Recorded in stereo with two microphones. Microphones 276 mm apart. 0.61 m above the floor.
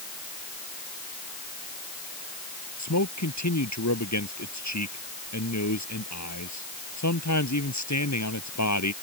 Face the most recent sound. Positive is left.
turn(degrees=85)